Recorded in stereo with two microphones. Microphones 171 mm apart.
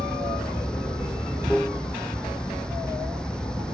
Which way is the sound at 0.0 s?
5° left (ahead or behind).